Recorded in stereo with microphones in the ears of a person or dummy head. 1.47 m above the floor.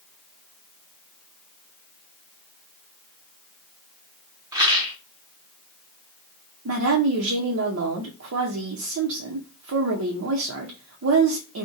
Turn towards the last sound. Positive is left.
turn(degrees=-80)